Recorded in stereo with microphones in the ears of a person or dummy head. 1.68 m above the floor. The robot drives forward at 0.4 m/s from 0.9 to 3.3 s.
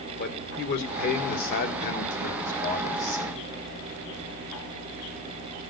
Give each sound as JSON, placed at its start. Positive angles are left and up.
{"t": 0.2, "sound": "a man speaking", "side_deg": 55, "distance_m": 2.0}